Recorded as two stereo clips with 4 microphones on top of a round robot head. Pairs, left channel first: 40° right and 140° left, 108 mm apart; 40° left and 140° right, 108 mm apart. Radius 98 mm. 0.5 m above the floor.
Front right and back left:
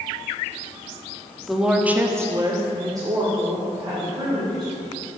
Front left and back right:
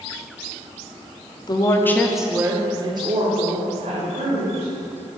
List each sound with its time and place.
1.5 s a woman speaking: 50° left, 1.2 m; by 4.7 s 160° right, 3.5 m